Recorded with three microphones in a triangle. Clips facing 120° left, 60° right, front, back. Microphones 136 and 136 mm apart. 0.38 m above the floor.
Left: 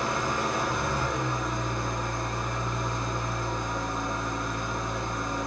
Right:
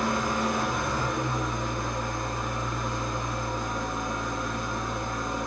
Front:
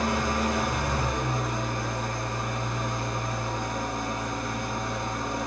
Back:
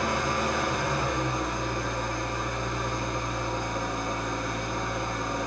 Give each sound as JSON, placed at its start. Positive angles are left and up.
{"t": 0.0, "sound": "an engine running", "azimuth_deg": 35, "distance_m": 1.4}